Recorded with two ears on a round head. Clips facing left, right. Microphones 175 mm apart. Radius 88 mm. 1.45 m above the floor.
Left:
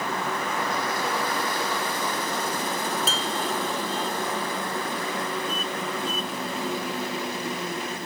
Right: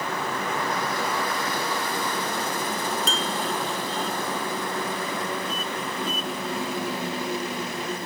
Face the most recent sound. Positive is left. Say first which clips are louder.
# right 1 dB
turn(degrees=5)  # may be behind; listen again after turning